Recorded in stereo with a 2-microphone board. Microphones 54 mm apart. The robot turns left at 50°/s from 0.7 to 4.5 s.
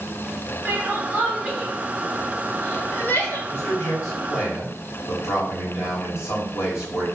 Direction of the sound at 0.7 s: 40° right (ahead or behind).